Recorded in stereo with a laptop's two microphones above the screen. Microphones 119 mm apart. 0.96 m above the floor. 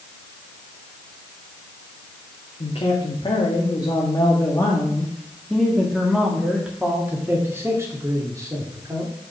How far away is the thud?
I don't hear a thud.